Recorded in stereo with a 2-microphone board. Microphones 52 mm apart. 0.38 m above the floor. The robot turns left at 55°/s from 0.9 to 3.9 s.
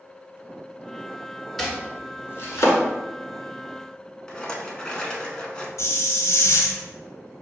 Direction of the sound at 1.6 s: 5° left (ahead or behind).